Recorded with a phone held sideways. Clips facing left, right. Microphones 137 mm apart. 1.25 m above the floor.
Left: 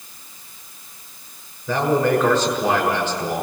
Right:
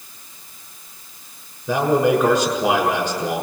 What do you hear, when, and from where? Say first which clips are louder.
1.7 s a man speaking: right 2 dB; 10° right (ahead or behind), 6.5 m